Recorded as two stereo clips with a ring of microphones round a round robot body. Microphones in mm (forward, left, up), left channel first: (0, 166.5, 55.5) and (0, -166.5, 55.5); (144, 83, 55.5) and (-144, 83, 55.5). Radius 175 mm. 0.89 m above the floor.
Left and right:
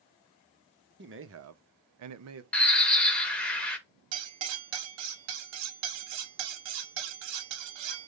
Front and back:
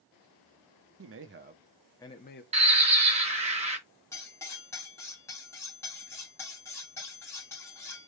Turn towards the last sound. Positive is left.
turn(degrees=-85)